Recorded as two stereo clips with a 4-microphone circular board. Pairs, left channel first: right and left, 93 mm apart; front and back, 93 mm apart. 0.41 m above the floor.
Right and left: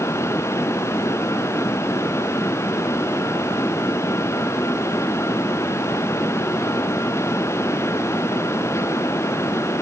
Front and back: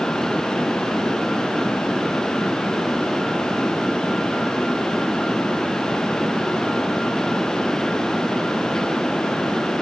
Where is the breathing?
I don't hear breathing.